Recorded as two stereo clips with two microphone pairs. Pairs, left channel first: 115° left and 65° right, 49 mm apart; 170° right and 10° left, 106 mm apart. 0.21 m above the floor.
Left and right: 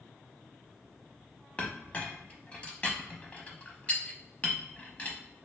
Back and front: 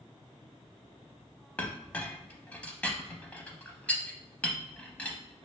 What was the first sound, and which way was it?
A clink, 125° left.